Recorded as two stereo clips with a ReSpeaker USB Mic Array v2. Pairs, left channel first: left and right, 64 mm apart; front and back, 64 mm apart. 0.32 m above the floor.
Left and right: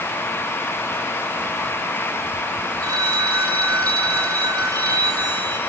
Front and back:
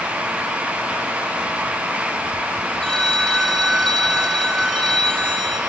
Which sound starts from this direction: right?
A phone ringing, at 2.8 s.